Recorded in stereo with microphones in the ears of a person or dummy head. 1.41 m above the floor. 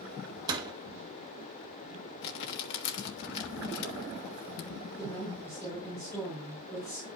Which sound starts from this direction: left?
Crumpling, at 2.2 s.